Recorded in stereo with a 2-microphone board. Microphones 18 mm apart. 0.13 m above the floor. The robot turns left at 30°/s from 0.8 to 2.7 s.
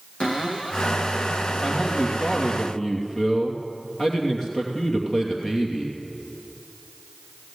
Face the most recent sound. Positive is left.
turn(degrees=45)